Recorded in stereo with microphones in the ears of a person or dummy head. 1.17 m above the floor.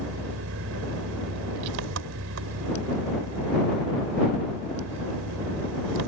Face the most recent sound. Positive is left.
turn(degrees=-75)  # may be behind; listen again after turning